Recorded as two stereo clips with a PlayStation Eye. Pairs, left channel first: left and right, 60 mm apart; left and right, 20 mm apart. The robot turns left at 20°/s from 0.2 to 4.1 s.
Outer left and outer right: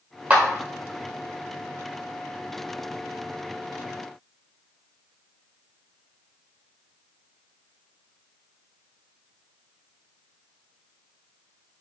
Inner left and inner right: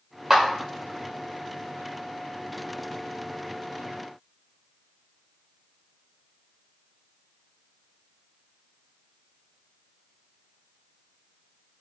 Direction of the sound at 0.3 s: 25° right (ahead or behind).